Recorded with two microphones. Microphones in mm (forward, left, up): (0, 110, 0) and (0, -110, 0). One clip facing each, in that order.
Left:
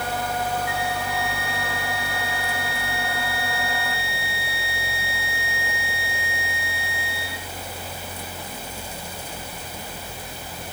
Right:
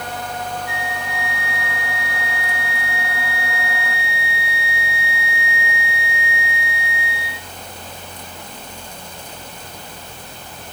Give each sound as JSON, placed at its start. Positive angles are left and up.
{"t": 0.7, "sound": "a flute", "side_deg": 50, "distance_m": 1.9}